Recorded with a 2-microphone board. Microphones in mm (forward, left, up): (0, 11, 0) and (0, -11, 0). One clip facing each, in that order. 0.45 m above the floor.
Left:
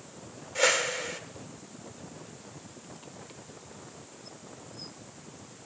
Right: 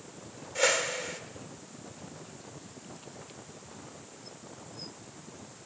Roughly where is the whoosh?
Centre.